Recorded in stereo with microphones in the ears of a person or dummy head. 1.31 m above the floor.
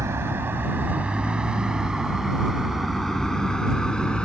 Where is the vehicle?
15° right (ahead or behind); by 4.3 s 5° left (ahead or behind).